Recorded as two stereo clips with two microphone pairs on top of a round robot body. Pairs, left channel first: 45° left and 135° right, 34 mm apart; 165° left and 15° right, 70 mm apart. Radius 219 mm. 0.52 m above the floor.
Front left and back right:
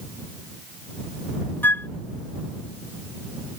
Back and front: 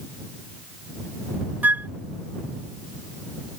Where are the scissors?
I don't hear scissors.